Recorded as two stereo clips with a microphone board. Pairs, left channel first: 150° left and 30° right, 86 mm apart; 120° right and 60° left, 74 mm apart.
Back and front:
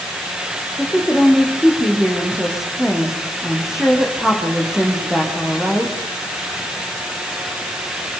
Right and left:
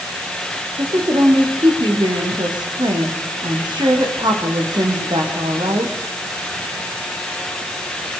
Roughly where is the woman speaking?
Ahead left.